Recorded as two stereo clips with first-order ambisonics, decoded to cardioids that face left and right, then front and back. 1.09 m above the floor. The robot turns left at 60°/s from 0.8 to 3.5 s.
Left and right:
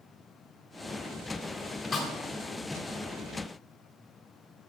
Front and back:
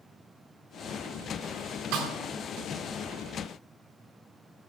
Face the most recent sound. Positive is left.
turn(degrees=60)